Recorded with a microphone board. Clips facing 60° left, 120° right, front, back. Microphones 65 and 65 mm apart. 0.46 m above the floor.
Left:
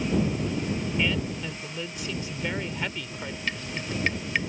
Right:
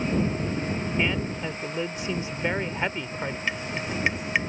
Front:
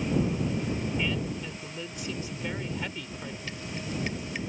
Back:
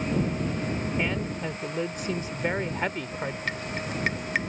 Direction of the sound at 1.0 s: 170° right.